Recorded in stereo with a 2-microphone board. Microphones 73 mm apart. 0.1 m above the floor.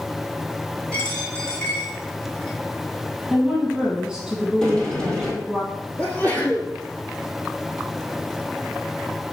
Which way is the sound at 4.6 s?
10° left (ahead or behind).